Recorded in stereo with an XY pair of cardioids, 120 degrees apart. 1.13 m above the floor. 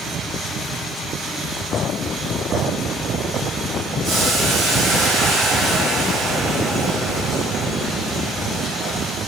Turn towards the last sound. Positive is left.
turn(degrees=-45)